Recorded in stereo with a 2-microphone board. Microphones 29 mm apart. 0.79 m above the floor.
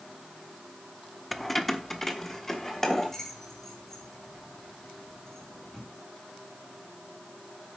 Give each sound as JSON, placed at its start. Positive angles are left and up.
{"t": 1.3, "sound": "keys jangling", "side_deg": 0, "distance_m": 0.6}